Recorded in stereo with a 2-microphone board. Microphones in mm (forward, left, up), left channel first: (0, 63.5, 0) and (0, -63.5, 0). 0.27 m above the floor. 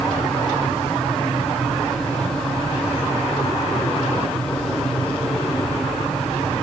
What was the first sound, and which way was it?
Only background noise.